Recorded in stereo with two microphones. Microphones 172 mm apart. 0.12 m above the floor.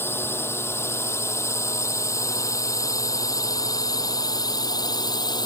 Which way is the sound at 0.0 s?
15° left (ahead or behind).